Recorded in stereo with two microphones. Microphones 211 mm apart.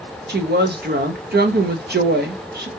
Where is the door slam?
I don't hear a door slam.